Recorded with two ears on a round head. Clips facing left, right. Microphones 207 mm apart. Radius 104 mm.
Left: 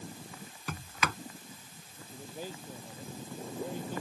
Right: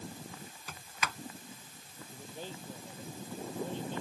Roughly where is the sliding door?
Left.